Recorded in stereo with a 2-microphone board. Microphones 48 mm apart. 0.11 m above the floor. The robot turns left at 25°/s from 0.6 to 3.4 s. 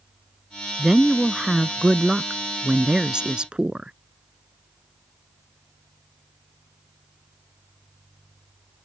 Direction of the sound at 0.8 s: 5° right (ahead or behind).